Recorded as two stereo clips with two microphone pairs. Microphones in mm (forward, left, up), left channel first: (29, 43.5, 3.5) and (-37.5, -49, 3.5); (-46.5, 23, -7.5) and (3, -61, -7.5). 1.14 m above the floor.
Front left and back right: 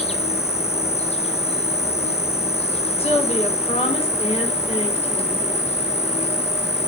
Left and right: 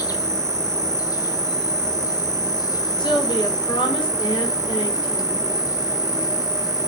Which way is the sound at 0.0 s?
70° left.